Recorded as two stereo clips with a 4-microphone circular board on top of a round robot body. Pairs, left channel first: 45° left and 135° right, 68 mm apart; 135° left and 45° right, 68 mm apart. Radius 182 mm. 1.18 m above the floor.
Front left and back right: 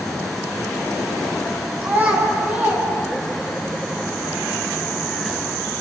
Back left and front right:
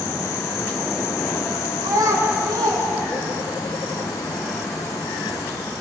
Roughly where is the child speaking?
Right.